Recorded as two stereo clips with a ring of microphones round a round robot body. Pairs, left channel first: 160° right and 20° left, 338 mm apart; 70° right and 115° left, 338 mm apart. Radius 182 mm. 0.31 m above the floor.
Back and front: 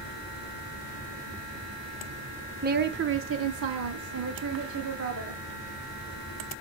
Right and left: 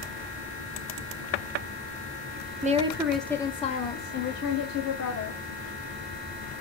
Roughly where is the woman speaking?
Ahead left.